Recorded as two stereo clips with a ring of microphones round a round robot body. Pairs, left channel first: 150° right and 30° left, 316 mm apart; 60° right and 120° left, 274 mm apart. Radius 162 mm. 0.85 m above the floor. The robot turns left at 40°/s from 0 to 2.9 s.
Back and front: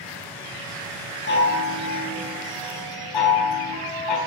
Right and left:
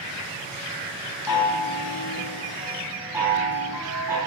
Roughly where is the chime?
Right.